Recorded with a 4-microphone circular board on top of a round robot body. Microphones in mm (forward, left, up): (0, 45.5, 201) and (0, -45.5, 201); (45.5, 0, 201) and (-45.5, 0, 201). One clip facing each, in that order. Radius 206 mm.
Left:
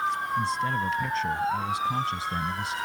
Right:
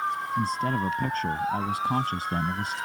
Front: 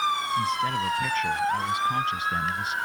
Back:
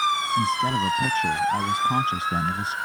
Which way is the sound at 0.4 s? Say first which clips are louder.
Right 3 dB, back 3 dB; 125° right.